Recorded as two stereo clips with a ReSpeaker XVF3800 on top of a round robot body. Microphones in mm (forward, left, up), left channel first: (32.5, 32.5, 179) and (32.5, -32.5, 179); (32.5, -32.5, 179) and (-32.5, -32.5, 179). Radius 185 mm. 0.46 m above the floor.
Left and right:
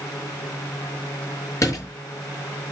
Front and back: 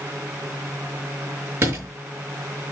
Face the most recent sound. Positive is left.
turn(degrees=130)